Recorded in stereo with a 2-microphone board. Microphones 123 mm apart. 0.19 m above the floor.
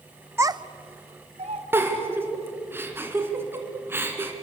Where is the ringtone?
I don't hear a ringtone.